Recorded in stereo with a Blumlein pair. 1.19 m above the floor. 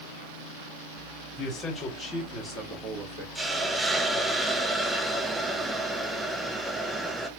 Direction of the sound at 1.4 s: 25° left.